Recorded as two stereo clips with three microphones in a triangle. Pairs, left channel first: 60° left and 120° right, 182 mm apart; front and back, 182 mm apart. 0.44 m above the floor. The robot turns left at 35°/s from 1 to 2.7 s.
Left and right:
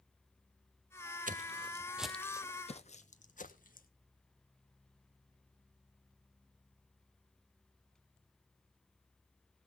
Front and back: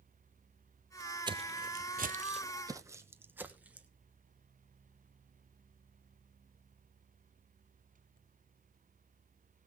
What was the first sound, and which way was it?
Footsteps, 125° right.